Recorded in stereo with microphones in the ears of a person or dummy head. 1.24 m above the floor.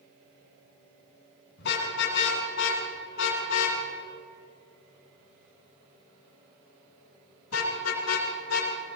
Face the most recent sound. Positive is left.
turn(degrees=85)